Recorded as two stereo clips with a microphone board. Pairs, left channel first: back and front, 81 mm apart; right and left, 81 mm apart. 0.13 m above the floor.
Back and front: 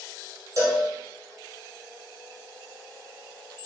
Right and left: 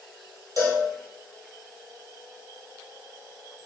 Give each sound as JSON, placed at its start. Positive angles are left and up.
{"t": 0.6, "sound": "a cowbell", "azimuth_deg": 40, "distance_m": 1.7}